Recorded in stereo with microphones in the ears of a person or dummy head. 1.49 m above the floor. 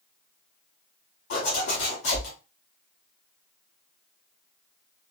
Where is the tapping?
No tapping in this recording.